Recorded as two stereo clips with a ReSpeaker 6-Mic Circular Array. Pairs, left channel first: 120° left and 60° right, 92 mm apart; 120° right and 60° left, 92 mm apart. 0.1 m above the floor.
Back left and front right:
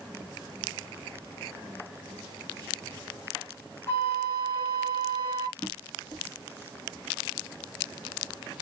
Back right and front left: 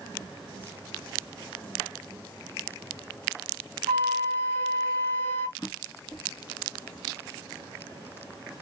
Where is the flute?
Straight behind, 2 m.